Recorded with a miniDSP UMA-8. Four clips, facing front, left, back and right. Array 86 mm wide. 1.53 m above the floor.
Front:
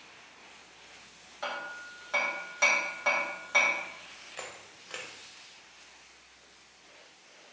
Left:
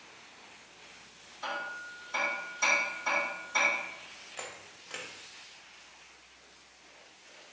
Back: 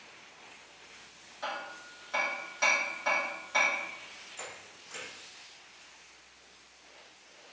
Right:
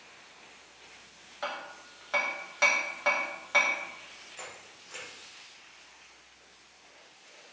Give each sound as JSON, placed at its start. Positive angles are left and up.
{"t": 1.4, "sound": "hammering", "azimuth_deg": -75, "distance_m": 1.0}
{"t": 4.4, "sound": "a camera shutter", "azimuth_deg": 30, "distance_m": 0.9}